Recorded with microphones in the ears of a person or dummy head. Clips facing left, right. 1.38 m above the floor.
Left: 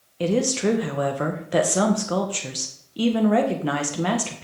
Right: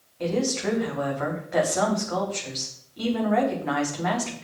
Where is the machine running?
No machine running in this recording.